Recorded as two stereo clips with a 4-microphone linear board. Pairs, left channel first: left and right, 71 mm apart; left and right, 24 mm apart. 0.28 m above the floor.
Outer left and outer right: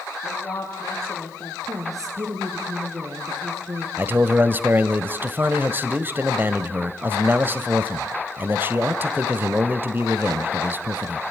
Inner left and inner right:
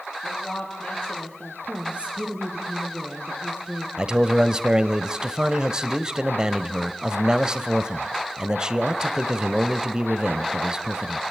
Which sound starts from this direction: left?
A woman speaking, at 0.2 s.